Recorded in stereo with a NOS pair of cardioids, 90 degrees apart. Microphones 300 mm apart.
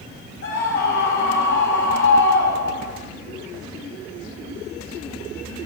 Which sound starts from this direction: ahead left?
A scream, at 0.4 s.